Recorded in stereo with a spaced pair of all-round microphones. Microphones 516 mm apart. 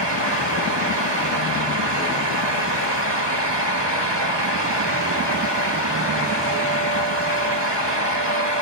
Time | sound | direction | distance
0.0 | a fan | 50° right (ahead or behind) | 1.3 m